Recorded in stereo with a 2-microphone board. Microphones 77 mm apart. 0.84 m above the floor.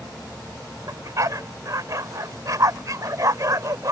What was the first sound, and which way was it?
A dog barking, 50° right (ahead or behind).